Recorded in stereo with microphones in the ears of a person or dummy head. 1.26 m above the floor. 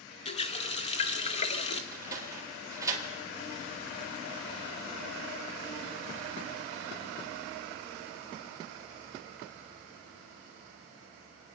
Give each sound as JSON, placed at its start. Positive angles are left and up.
{"t": 0.2, "sound": "a running tap", "side_deg": 35, "distance_m": 0.7}
{"t": 1.9, "sound": "a sliding door", "side_deg": -15, "distance_m": 1.9}